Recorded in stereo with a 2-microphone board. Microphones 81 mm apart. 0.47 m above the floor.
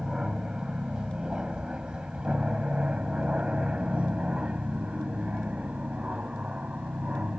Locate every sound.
0.0 s an aircraft: 10° right (ahead or behind); by 7.4 s 15° right (ahead or behind)